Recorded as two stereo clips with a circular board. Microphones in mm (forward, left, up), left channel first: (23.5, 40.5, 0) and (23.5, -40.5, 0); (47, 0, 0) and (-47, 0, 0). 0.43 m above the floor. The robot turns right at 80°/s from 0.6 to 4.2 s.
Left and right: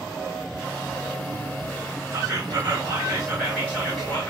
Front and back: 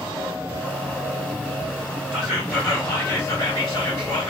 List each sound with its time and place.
2.1 s whispering: 110° right, 1.6 m; by 4.3 s 55° left, 1.6 m